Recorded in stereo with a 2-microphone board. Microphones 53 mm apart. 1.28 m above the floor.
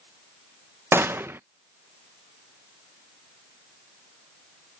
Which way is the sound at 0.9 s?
45° right (ahead or behind).